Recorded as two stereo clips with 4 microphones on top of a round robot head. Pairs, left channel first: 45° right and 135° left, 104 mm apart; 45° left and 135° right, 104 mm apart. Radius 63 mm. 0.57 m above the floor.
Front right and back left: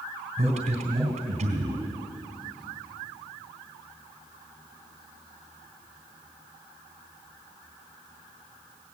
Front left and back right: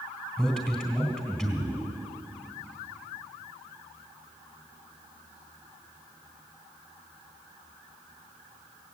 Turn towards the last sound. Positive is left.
turn(degrees=135)